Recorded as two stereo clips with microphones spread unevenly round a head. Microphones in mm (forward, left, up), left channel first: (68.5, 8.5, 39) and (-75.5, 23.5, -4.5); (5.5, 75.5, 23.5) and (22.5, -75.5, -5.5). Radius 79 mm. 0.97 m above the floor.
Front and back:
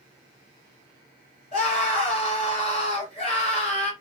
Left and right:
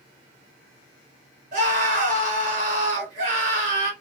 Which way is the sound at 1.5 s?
55° right.